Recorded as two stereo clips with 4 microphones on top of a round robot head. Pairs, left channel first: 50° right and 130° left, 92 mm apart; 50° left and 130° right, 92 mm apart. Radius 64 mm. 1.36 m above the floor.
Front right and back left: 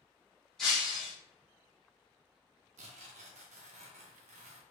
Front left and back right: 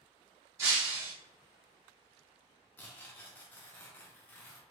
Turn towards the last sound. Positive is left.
turn(degrees=125)